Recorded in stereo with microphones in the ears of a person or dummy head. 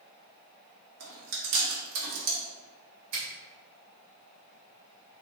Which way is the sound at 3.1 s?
65° right (ahead or behind).